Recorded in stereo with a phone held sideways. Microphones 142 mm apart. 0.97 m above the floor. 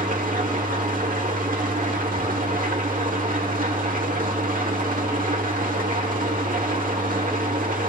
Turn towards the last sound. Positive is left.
turn(degrees=-75)  # may be behind; listen again after turning